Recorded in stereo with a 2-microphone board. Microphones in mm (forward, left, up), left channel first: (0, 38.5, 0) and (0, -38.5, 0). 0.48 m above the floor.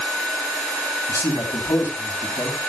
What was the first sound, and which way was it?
A man speaking, 45° left (ahead or behind).